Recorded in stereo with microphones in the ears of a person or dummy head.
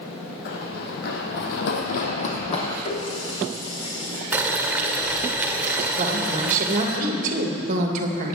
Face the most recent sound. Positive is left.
turn(degrees=-45)  # may be behind; listen again after turning